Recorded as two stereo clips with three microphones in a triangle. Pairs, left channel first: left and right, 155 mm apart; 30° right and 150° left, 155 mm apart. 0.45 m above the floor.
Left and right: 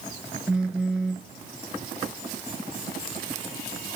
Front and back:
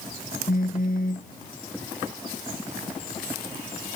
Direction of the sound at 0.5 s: 5° right.